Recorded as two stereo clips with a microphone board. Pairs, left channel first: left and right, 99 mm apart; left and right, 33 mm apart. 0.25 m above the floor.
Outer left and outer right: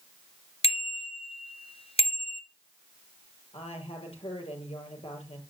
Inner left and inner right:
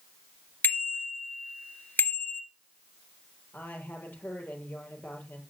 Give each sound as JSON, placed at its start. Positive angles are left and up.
{"t": 0.6, "sound": "a bicycle bell", "side_deg": 70, "distance_m": 2.5}
{"t": 3.5, "sound": "a woman speaking", "side_deg": 80, "distance_m": 6.5}